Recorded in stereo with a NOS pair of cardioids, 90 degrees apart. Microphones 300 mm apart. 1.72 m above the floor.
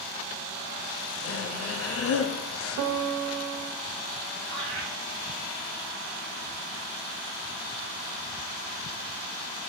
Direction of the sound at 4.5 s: 50° right.